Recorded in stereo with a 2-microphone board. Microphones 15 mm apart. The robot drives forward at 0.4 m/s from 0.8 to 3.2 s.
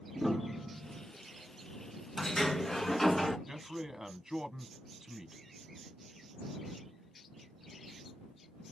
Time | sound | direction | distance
0.1 | a piano | 15° right (ahead or behind) | 2.5 m
2.2 | a sliding door | 30° left (ahead or behind) | 1.2 m
3.5 | a man speaking | 35° right (ahead or behind) | 1.2 m